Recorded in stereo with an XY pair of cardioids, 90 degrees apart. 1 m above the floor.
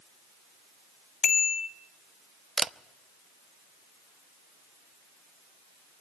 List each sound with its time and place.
1.2 s a bicycle bell: 60° left, 3 m
2.6 s a camera shutter: 45° right, 0.6 m